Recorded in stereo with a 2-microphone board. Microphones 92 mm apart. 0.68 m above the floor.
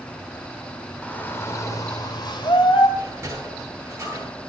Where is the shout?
15° left (ahead or behind), 1.7 m; by 2.9 s 65° left (ahead or behind), 2.5 m.